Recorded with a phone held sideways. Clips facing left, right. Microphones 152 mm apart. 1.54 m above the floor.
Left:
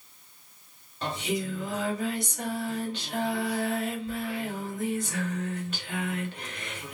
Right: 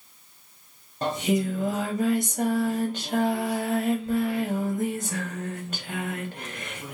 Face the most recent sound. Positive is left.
turn(degrees=-45)  # may be behind; listen again after turning